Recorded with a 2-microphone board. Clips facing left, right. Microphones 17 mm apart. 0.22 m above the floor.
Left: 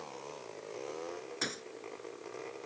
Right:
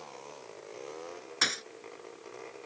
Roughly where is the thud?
Right.